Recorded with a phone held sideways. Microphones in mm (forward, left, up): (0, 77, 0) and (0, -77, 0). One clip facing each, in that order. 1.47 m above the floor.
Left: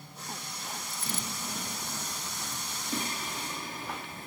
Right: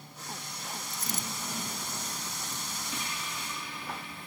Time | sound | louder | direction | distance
0.9 | a dropped coin | even | 45° right (ahead or behind) | ?
2.9 | singing | left 7 dB | 45° left (ahead or behind) | ?